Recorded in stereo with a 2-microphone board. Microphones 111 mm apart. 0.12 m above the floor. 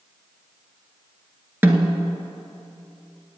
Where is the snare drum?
20° right (ahead or behind), 1.0 m.